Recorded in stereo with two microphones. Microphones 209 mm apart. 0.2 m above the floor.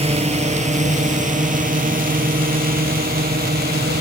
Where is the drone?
30° right (ahead or behind); by 4.0 s 50° right (ahead or behind).